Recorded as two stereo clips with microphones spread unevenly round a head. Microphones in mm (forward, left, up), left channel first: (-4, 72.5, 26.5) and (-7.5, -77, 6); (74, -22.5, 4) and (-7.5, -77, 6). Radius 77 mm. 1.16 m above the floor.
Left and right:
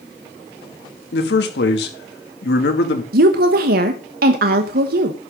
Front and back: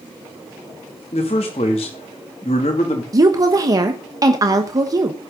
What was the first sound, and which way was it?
A man speaking, 75° left.